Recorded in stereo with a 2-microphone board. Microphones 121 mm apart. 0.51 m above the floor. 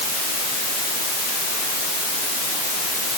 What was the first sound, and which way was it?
Only background noise.